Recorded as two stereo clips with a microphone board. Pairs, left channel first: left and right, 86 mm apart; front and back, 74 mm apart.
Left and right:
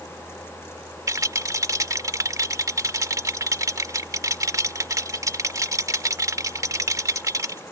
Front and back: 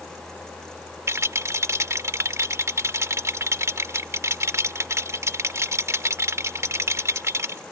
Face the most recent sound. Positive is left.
turn(degrees=-135)